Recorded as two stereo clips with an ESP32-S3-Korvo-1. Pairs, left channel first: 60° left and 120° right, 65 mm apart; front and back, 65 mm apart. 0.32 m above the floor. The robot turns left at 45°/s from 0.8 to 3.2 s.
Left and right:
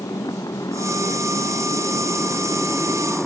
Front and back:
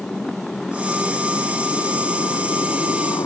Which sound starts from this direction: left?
A motorcycle, at 0.0 s.